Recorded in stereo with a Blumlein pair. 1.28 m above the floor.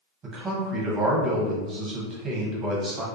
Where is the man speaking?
25° right, 0.9 m.